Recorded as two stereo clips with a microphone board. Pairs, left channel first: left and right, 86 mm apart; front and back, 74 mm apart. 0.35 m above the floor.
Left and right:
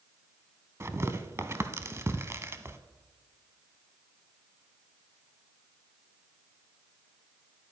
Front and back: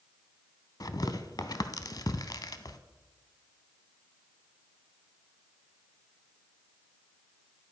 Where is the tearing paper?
35° right, 0.7 m.